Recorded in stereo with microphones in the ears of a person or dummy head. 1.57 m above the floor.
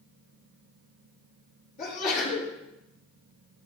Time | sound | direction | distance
1.8 | a sneeze | 50° left (ahead or behind) | 4 m